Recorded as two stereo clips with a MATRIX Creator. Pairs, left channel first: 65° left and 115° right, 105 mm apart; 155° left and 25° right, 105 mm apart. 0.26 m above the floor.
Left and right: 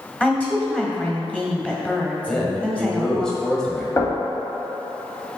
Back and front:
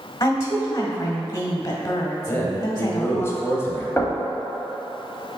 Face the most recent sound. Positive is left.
turn(degrees=100)